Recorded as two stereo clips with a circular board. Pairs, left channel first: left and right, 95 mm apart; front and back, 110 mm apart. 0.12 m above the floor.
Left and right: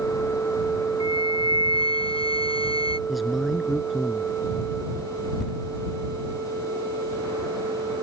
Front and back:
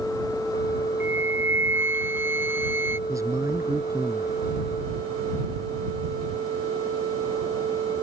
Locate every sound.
1.0 s a flute: 110° left
3.1 s a man speaking: 175° right